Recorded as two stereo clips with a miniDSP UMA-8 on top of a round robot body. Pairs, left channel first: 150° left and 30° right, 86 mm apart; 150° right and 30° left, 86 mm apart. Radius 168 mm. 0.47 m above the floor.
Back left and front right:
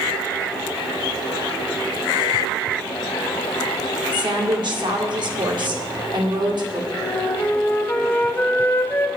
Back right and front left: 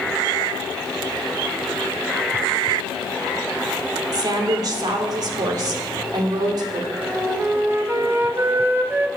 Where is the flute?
90° left, 1.2 m.